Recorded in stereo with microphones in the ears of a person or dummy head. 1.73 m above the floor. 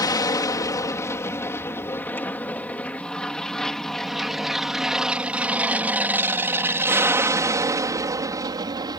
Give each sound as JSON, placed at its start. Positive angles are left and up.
{"t": 0.0, "sound": "an aircraft", "side_deg": 20}